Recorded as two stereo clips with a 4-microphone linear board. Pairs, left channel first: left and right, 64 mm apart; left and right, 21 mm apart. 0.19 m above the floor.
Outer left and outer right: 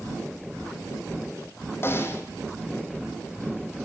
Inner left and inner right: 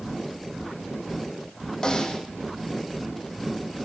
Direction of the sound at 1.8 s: 35° left (ahead or behind).